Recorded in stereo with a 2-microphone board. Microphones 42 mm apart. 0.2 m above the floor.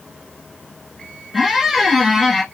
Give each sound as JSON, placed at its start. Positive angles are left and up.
{"t": 1.3, "sound": "a squeak", "side_deg": -5, "distance_m": 0.8}